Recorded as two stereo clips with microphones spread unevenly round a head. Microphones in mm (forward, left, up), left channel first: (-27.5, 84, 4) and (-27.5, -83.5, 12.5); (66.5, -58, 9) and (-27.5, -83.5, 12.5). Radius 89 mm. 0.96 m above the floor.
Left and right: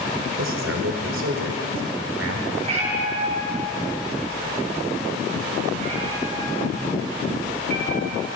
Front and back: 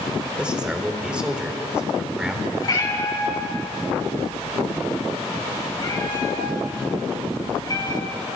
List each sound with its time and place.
0.4 s a man speaking: 85° right, 3.5 m
2.6 s a cat meowing: 30° right, 5.5 m